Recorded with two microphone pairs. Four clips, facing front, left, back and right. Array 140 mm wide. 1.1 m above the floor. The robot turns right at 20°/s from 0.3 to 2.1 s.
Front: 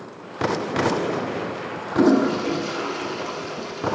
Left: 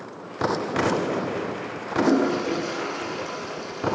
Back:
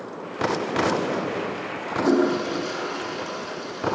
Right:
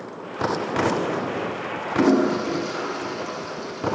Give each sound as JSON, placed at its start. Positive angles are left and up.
{"t": 1.9, "sound": "a toilet flushing", "azimuth_deg": -35, "distance_m": 9.0}